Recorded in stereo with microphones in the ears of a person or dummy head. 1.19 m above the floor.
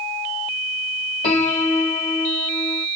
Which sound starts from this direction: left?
A piano, at 1.2 s.